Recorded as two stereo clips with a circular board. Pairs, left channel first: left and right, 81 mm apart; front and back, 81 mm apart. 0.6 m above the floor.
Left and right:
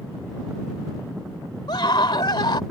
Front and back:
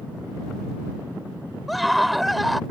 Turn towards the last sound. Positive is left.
turn(degrees=90)